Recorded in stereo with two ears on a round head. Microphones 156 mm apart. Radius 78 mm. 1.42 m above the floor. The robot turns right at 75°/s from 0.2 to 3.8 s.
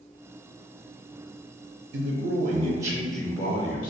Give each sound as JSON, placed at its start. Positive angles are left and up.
{"t": 1.9, "sound": "a man speaking", "azimuth_deg": -85, "distance_m": 0.6}